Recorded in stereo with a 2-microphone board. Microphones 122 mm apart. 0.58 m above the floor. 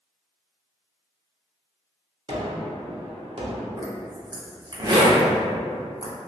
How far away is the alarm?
I don't hear an alarm.